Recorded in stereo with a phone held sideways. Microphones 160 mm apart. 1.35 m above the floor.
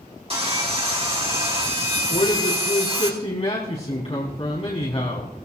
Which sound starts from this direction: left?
A man speaking, at 2.1 s.